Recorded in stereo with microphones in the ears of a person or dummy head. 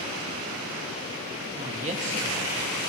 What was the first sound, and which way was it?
A woman speaking, 40° right (ahead or behind).